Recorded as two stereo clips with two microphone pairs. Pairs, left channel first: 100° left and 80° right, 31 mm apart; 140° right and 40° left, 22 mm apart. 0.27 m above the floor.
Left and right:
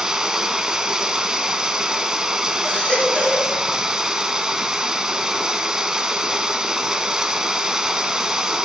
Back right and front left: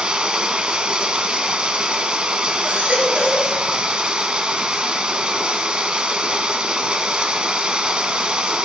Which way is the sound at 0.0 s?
5° right.